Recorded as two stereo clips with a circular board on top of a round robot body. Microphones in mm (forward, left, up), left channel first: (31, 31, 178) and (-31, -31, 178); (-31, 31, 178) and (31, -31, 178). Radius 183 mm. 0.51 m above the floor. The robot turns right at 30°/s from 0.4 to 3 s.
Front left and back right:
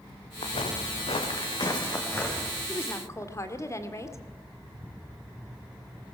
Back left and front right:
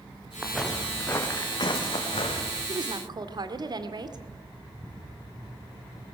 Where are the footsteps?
40° left, 3 m; by 2.6 s 125° left, 4.5 m.